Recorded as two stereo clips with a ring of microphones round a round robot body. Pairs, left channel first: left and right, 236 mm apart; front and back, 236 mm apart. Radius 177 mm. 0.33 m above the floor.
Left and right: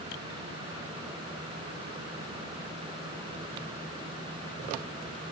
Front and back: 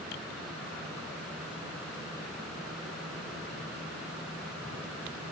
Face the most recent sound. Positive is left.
No sound to turn to.